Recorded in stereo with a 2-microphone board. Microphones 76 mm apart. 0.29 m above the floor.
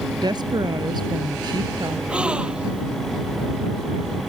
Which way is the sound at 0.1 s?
70° right (ahead or behind).